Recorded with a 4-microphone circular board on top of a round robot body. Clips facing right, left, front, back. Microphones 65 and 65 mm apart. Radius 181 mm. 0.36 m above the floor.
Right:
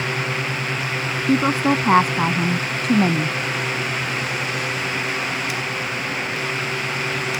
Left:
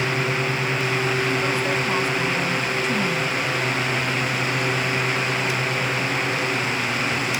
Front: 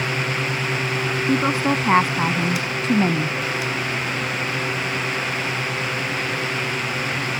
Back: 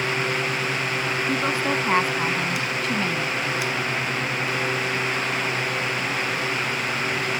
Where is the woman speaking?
75° right; by 3.4 s 60° right.